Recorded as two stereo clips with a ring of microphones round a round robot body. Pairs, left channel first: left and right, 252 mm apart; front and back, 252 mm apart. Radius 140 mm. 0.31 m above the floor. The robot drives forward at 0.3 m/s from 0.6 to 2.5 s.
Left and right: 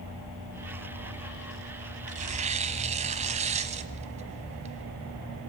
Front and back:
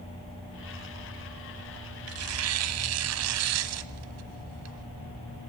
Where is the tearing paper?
150° right, 1.0 m; by 5.5 s 155° right, 1.1 m.